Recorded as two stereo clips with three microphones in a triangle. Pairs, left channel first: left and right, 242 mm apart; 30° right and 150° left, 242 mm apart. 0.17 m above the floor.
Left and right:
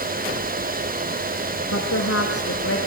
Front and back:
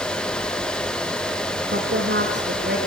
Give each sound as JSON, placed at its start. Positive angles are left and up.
{"t": 1.7, "sound": "a woman speaking", "azimuth_deg": 105, "distance_m": 8.0}